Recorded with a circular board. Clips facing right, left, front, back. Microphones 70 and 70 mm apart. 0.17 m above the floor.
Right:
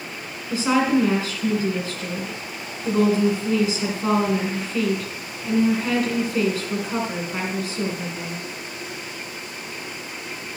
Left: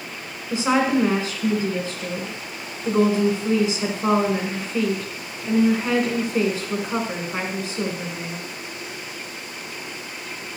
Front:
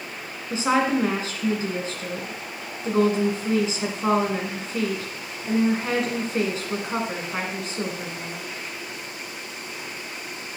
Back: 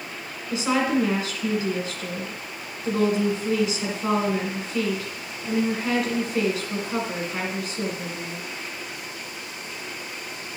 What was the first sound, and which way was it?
A woman speaking, 35° left.